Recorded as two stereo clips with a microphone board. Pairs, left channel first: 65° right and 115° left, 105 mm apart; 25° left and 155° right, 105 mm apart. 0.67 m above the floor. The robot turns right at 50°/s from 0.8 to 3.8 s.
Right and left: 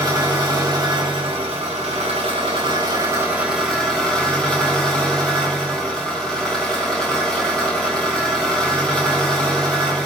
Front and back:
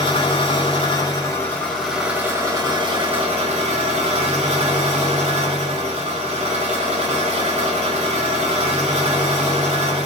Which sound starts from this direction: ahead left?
An engine running, at 0.0 s.